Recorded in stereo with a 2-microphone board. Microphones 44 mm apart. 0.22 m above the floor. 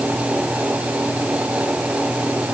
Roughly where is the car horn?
No car horn in this recording.